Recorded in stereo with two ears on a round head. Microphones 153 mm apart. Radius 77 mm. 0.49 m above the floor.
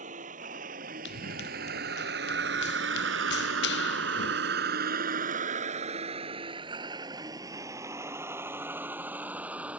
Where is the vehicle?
45° right (ahead or behind); by 9.8 s 10° right (ahead or behind).